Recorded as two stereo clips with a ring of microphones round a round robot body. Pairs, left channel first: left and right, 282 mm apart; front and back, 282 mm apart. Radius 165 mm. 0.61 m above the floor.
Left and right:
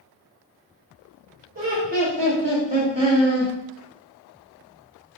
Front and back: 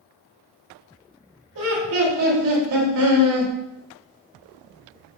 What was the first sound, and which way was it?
Laughter, 145° right.